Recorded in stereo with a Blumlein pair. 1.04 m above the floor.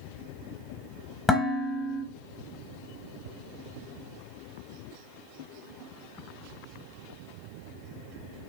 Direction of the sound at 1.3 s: 15° left.